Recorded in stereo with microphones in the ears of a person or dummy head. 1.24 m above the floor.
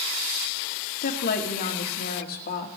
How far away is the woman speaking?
About 1.8 m.